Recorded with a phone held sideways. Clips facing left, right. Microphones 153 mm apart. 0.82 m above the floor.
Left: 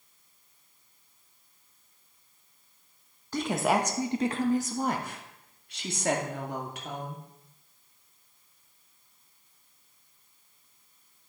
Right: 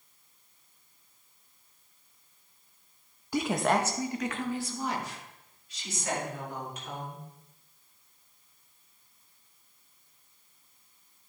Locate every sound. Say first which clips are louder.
3.3 s a woman speaking: even; 10° right (ahead or behind), 0.7 m; by 7.2 s 70° left (ahead or behind), 2 m